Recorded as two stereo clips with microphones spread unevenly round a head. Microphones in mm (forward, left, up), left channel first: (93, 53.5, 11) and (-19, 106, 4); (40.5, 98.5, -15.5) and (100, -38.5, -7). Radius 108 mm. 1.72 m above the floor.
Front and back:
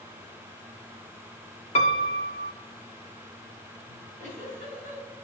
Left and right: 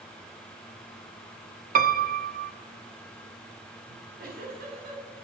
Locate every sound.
1.8 s a piano: 65° right, 0.7 m
3.9 s a giggle: 65° right, 5 m